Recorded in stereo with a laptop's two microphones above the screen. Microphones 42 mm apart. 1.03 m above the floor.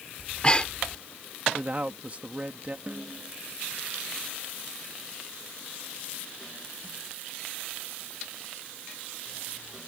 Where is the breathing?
25° left (ahead or behind).